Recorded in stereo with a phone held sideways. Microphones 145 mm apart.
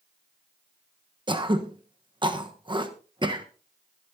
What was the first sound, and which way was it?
Throat clearing, 35° right (ahead or behind).